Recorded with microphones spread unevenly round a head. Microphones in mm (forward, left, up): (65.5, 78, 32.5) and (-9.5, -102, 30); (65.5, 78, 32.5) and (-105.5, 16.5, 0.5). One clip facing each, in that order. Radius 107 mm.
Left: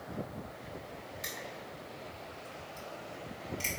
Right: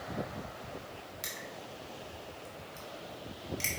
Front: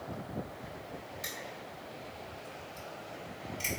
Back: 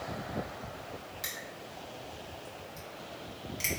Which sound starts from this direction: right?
Crushing, at 1.2 s.